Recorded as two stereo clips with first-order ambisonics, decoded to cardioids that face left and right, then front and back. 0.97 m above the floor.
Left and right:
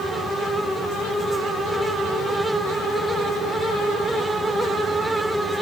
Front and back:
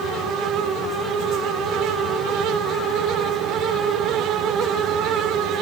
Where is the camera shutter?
I don't hear a camera shutter.